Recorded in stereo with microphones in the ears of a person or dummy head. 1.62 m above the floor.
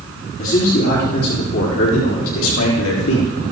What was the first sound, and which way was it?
A man speaking, 50° left (ahead or behind).